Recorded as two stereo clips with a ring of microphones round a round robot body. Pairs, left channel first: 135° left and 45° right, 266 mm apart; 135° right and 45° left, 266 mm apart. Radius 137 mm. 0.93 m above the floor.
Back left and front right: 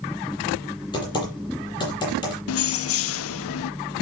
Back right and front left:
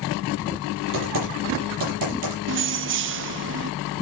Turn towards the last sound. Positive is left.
turn(degrees=95)